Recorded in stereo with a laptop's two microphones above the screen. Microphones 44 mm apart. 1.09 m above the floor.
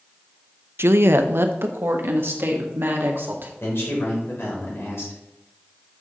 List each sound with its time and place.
0.8 s a woman speaking: 70° right (ahead or behind), 0.5 m; by 3.5 s 60° right (ahead or behind), 2 m
3.6 s a man speaking: 90° left, 3.5 m